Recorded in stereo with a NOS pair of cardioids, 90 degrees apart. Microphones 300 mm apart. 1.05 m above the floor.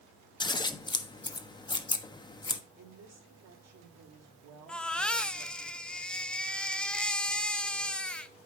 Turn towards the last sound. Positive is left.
turn(degrees=5)